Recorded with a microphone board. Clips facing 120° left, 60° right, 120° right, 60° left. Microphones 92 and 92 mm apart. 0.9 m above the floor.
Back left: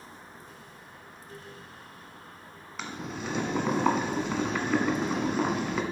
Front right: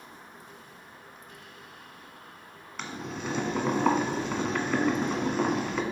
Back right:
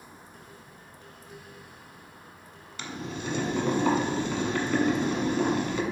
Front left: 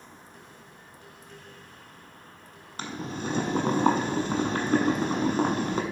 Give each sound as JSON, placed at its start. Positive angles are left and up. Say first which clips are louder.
{"t": 2.8, "sound": "boiling", "louder": "even, front left 2 dB", "azimuth_deg": 30, "distance_m": 1.2}